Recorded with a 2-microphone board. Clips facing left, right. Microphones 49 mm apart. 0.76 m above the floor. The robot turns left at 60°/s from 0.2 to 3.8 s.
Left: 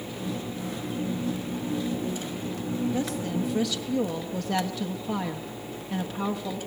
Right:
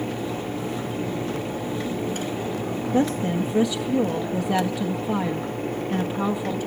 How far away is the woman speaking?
About 0.9 m.